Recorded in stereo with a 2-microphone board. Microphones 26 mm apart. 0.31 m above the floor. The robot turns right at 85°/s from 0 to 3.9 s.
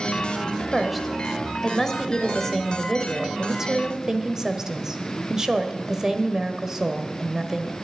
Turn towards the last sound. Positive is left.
turn(degrees=-20)  # may be behind; listen again after turning